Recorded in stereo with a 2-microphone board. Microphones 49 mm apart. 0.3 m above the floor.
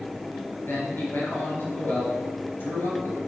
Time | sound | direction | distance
0.7 | a man speaking | 50° left (ahead or behind) | 4.5 m